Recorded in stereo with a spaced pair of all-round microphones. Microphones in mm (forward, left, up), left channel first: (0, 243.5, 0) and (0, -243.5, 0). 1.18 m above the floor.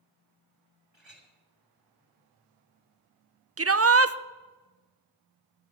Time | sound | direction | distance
0.9 | a clink | 60° right (ahead or behind) | 2.5 m
3.6 | a shout | 30° right (ahead or behind) | 0.5 m